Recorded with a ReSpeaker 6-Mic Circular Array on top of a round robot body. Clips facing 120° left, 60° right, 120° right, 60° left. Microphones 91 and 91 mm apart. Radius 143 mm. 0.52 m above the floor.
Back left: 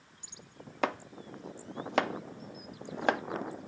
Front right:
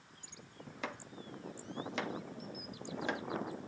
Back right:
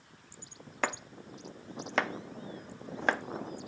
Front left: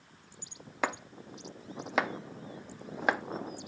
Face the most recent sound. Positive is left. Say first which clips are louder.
# back left 11 dB, front left 1 dB
turn(degrees=140)